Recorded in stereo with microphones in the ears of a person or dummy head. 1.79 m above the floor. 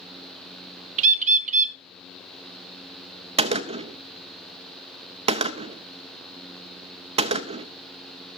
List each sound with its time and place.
1.0 s a bird: 45° right (ahead or behind), 0.6 m
3.4 s a gunshot: 35° right (ahead or behind), 0.7 m